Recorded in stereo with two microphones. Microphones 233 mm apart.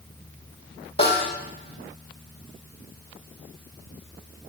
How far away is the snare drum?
About 3.5 m.